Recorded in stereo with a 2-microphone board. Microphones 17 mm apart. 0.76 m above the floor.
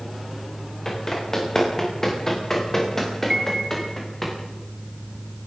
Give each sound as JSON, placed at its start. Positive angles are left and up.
{"t": 0.8, "sound": "running footsteps", "side_deg": 35, "distance_m": 8.5}
{"t": 3.3, "sound": "a piano", "side_deg": -25, "distance_m": 5.0}